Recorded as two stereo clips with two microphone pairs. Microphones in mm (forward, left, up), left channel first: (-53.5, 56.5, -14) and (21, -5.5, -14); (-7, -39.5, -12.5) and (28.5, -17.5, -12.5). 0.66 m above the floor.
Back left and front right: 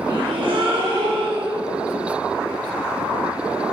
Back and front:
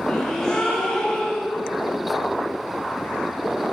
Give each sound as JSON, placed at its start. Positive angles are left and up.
{"t": 0.1, "sound": "a gasp", "azimuth_deg": -70, "distance_m": 1.9}